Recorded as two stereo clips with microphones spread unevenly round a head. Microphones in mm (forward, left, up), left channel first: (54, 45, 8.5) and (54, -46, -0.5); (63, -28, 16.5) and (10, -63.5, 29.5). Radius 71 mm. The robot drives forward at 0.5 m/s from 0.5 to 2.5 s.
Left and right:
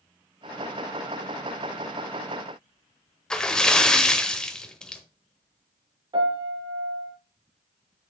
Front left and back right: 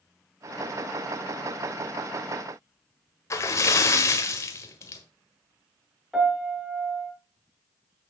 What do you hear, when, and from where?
3.3 s a splash: 25° left, 1.2 m
6.1 s a piano: 55° right, 4.5 m